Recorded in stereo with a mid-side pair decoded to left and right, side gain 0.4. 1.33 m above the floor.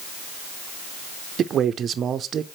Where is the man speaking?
65° right, 0.5 m.